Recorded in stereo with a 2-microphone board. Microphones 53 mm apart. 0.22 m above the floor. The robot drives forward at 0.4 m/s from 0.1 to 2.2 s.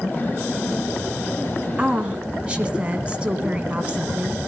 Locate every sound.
1.8 s a woman speaking: 20° right (ahead or behind), 2.5 m